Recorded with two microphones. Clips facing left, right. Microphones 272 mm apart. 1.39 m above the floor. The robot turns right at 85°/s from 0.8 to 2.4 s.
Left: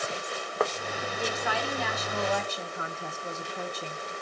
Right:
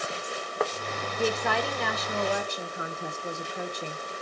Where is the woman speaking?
120° right, 1.0 m; by 4.0 s 15° right, 1.0 m.